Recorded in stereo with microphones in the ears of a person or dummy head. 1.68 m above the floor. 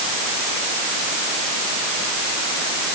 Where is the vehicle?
I don't hear a vehicle.